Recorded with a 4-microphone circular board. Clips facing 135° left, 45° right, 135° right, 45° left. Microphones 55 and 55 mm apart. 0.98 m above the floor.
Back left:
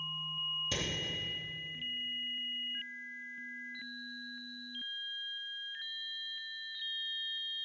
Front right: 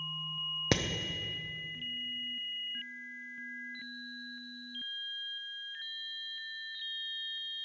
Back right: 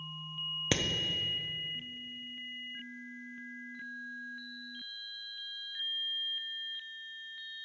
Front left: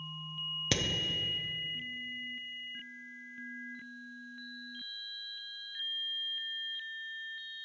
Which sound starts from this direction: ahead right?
Hammering, at 0.7 s.